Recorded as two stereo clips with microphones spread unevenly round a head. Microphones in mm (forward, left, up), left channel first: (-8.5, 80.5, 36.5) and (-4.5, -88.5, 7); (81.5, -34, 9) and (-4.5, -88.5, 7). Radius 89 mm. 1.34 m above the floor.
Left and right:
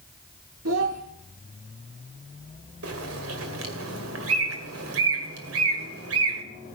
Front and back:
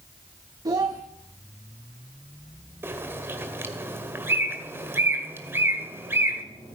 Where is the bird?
80° right, 2 m.